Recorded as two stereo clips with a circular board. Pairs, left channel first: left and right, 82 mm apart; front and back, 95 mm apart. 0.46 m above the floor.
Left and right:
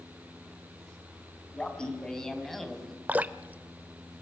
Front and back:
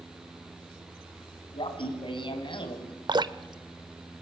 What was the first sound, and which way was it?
Laughter, 15° left.